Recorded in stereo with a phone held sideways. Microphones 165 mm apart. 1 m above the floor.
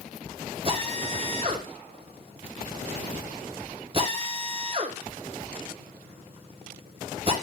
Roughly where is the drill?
Right.